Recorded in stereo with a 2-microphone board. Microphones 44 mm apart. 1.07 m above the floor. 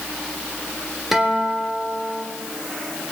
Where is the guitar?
10° right (ahead or behind), 3.5 m.